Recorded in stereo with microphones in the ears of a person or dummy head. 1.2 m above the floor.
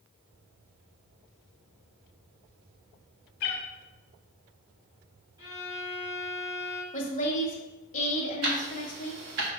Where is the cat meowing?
50° left (ahead or behind), 0.9 m.